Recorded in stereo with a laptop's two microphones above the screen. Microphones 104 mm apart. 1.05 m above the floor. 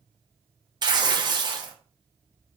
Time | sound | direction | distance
0.8 | tearing paper | 45° right (ahead or behind) | 0.6 m